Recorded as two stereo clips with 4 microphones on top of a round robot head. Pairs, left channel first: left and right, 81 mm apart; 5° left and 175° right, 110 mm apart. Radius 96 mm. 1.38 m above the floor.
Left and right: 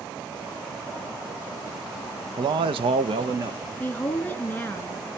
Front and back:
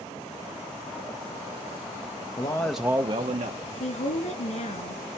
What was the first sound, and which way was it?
A man speaking, 60° right.